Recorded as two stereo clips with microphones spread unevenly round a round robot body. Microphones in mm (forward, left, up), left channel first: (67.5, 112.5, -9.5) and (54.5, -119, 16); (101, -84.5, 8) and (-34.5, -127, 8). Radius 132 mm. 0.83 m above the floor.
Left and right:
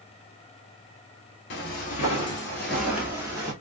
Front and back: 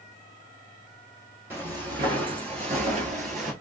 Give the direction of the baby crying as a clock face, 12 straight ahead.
No baby crying in this recording.